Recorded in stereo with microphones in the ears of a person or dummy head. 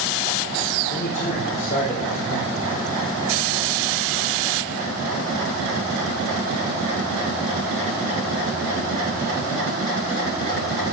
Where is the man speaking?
50° left (ahead or behind), 4.5 m.